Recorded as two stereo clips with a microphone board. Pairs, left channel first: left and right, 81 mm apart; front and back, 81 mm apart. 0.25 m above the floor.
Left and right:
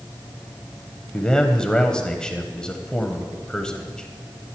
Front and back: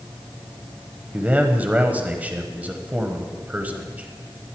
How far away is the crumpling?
No crumpling in this recording.